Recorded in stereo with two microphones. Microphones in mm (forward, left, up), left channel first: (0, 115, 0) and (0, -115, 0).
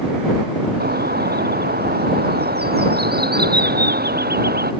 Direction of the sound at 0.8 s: 45° right (ahead or behind).